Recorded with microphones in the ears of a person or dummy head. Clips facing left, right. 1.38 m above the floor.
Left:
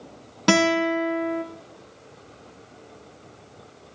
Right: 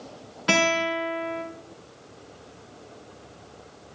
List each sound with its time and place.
0.5 s a guitar: 65° left (ahead or behind), 3 m